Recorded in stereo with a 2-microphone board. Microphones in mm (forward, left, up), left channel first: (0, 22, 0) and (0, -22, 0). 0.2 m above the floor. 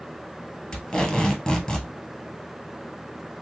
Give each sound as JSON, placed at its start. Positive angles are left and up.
{"t": 0.7, "sound": "tape being pulled", "side_deg": 15, "distance_m": 1.2}